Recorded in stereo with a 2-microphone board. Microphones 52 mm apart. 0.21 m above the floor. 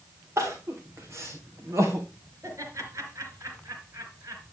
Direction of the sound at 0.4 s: 55° right (ahead or behind).